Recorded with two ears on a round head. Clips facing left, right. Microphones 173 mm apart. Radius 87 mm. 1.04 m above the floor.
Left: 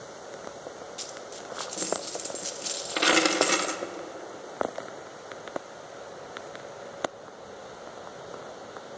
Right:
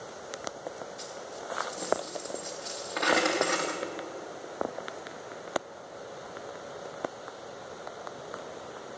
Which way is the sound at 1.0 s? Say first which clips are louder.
Even; 40° left (ahead or behind).